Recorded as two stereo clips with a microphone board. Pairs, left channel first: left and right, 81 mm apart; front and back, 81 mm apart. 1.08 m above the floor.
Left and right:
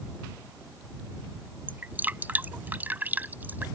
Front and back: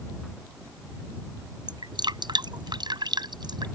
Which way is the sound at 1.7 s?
155° right.